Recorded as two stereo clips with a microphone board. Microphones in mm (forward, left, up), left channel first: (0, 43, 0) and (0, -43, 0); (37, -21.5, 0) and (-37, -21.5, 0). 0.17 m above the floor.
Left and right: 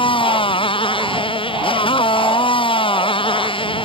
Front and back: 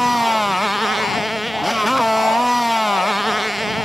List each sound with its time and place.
0.0 s a motorcycle: 90° left